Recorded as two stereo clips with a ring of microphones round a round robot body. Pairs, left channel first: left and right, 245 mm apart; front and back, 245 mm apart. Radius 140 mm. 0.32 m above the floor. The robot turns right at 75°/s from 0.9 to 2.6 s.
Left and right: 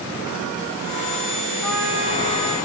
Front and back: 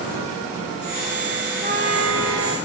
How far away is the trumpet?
About 6 m.